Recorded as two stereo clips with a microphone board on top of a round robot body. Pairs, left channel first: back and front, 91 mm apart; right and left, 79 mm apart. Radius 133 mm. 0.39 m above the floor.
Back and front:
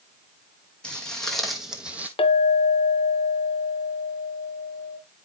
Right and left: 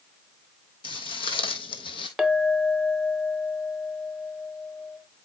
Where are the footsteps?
100° right, 1.4 m; by 2.1 s 75° right, 0.8 m.